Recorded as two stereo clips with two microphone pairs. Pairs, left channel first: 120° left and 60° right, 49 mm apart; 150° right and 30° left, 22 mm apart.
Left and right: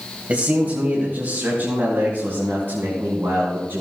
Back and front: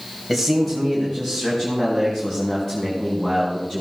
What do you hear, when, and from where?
0.3 s a man speaking: 70° right, 1.6 m; by 3.8 s 85° right, 3 m